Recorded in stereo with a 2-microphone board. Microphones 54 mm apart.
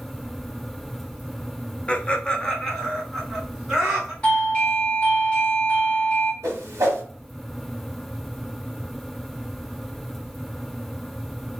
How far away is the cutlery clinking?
No cutlery clinking in this recording.